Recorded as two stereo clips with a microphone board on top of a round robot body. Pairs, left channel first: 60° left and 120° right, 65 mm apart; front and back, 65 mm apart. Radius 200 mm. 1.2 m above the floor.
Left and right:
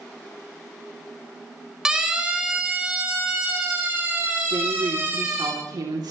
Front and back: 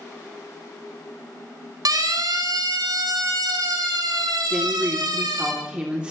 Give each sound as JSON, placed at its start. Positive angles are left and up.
{"t": 1.9, "sound": "a siren", "azimuth_deg": 160, "distance_m": 4.0}
{"t": 4.5, "sound": "a woman speaking", "azimuth_deg": -105, "distance_m": 3.0}